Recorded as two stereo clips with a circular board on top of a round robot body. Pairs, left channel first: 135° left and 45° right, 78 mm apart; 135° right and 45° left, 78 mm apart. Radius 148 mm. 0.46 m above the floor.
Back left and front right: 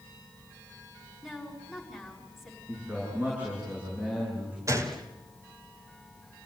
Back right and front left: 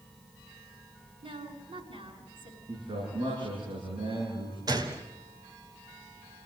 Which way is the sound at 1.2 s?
45° left.